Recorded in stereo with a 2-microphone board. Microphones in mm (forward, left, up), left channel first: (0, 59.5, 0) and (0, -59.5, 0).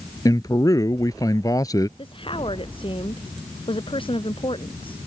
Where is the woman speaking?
50° left (ahead or behind).